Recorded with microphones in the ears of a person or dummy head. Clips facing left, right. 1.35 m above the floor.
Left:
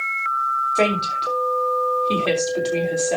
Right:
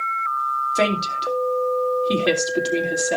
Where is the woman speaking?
15° right (ahead or behind), 3.5 m.